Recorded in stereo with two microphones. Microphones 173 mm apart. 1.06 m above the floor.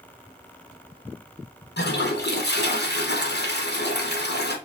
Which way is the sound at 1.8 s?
80° left.